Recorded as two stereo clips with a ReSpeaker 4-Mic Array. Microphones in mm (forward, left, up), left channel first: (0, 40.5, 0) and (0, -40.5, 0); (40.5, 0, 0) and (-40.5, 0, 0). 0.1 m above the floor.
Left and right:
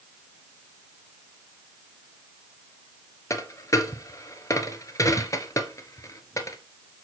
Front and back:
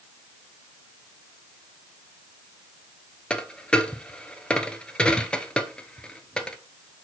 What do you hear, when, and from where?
3.3 s a dropped coin: 70° left, 0.8 m